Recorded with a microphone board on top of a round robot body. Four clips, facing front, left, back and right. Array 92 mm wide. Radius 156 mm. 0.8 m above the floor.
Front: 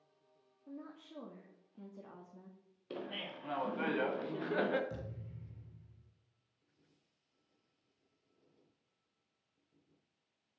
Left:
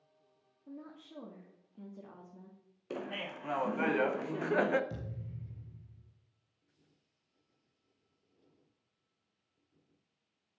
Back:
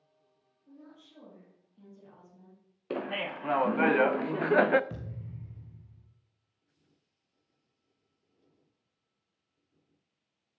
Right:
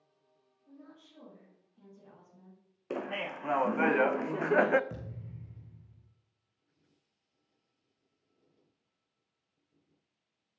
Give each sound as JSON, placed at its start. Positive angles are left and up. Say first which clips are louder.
{"t": 0.7, "sound": "a woman speaking", "louder": "left 5 dB, front 3 dB", "azimuth_deg": 45, "distance_m": 2.0}
{"t": 2.9, "sound": "laughter", "louder": "right 4 dB, back 10 dB", "azimuth_deg": -150, "distance_m": 0.6}
{"t": 4.9, "sound": "a thud", "louder": "even, back 3 dB", "azimuth_deg": -150, "distance_m": 0.7}